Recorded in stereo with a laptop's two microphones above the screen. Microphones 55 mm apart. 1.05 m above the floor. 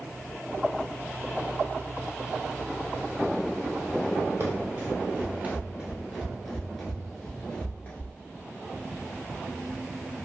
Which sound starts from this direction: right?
Running footsteps, at 4.4 s.